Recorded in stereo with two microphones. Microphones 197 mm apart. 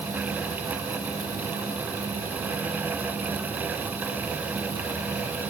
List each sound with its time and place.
Only background noise.